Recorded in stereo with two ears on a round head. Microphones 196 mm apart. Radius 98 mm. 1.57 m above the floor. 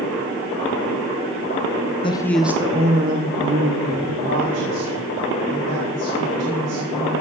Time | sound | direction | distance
2.0 | a woman speaking | 25° left (ahead or behind) | 1.2 m